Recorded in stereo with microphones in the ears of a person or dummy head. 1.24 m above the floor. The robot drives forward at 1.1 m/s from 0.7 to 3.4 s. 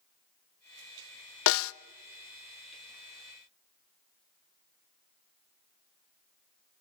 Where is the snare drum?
65° left (ahead or behind), 0.5 m; by 1.7 s 80° left, 0.5 m.